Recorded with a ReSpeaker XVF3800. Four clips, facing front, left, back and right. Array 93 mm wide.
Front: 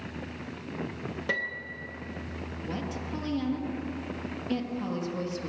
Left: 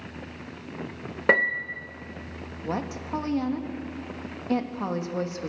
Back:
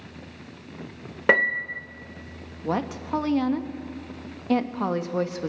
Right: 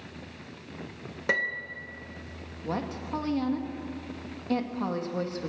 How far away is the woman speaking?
About 1.5 m.